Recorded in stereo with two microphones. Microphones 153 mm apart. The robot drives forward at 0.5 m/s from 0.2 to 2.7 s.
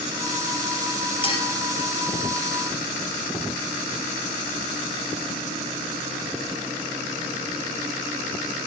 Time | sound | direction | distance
1.2 | a clink | 35° left (ahead or behind) | 3 m